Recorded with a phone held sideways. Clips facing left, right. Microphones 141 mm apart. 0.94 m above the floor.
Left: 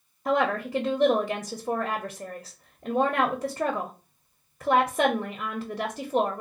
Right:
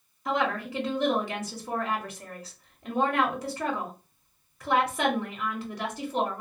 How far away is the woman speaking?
About 0.6 m.